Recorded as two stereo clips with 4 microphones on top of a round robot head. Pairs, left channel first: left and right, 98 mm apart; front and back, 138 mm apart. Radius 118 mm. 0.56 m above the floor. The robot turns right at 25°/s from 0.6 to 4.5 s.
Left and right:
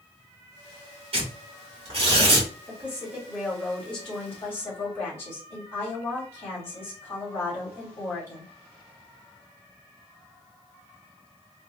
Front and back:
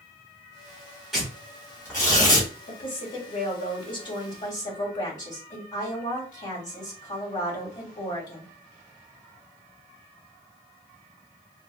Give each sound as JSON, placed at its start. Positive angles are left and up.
{"t": 1.1, "sound": "tearing paper", "azimuth_deg": -95, "distance_m": 2.5}
{"t": 2.7, "sound": "a woman speaking", "azimuth_deg": -20, "distance_m": 2.5}